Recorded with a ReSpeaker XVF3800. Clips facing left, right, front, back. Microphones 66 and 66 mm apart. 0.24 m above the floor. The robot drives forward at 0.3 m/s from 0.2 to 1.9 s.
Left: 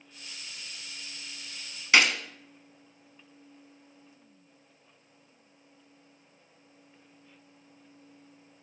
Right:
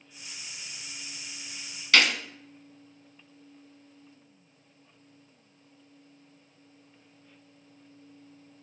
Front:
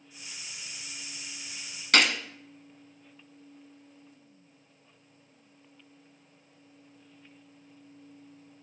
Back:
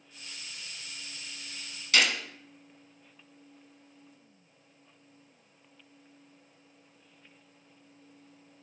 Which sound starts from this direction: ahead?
A gunshot, at 1.9 s.